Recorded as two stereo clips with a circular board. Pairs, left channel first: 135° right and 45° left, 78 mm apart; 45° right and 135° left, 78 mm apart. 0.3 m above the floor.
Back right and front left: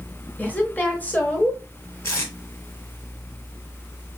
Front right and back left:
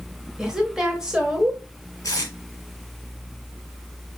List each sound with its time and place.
0.4 s a woman speaking: 155° right, 1.0 m
2.0 s tape being pulled: 85° right, 1.4 m